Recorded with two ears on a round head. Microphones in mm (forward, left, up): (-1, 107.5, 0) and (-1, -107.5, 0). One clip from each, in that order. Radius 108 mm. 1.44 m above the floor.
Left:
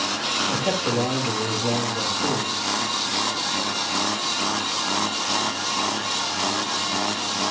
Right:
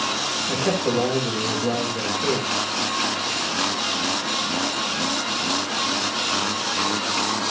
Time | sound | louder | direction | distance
0.5 | a man speaking | right 1 dB | 65° right (ahead or behind) | 3 m